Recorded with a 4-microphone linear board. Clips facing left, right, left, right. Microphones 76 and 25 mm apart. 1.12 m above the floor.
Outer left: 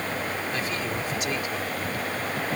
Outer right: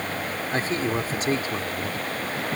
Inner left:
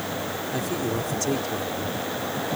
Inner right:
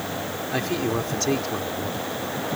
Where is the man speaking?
35° right (ahead or behind).